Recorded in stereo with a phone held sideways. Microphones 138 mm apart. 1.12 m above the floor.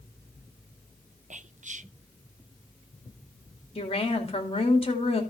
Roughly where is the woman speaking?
Left.